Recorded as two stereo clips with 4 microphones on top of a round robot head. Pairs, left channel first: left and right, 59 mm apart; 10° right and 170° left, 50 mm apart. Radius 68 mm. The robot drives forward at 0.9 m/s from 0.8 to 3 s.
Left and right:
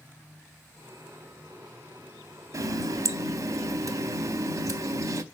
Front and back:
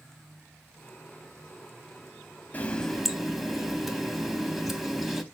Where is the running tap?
65° right, 0.7 m; by 5.2 s 110° right, 0.7 m.